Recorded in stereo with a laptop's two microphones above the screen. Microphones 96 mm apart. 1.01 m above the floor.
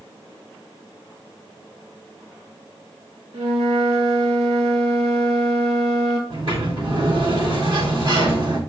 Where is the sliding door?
55° right (ahead or behind), 2.5 m.